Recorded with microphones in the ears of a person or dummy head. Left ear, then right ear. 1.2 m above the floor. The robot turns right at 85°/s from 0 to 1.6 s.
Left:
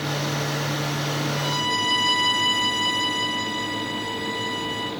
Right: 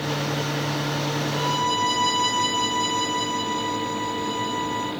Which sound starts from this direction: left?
A violin, at 1.3 s.